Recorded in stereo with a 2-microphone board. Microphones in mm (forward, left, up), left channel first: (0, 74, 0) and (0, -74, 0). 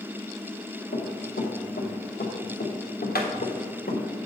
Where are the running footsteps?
70° left (ahead or behind), 3.5 m.